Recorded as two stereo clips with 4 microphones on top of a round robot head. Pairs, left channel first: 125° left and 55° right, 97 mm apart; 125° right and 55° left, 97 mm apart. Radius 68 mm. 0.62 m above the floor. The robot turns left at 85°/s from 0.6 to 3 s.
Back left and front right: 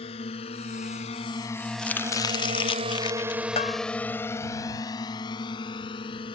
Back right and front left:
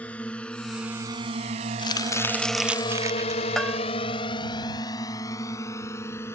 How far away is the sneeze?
No sneeze in this recording.